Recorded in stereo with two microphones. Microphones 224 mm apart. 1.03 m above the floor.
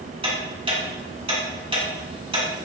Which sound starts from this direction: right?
Ticking, at 0.2 s.